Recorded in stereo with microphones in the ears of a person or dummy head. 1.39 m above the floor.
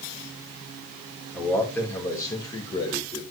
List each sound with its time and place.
1.3 s a man speaking: 5° left (ahead or behind), 3 m; by 3.2 s 35° left (ahead or behind), 3 m